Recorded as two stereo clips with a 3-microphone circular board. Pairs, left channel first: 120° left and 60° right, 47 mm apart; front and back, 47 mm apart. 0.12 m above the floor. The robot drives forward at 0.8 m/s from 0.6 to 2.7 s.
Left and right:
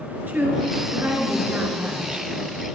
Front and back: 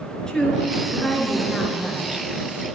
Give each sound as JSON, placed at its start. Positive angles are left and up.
{"t": 0.3, "sound": "a woman speaking", "azimuth_deg": -65, "distance_m": 2.0}